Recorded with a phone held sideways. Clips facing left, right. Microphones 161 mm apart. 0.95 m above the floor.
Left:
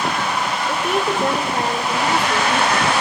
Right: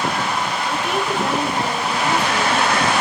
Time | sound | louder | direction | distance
0.7 | a woman speaking | left 3 dB | 45° left (ahead or behind) | 3 m